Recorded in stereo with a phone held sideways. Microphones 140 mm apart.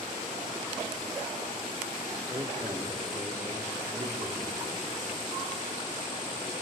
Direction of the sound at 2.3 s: 20° right (ahead or behind).